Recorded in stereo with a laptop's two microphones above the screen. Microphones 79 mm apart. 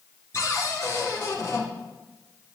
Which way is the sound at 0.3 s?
45° left (ahead or behind).